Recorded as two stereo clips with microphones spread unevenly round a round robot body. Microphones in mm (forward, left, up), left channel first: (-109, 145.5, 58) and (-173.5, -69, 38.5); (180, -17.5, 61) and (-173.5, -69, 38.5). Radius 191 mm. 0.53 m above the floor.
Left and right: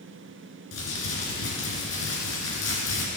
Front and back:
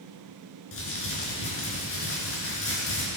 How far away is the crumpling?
About 2.5 m.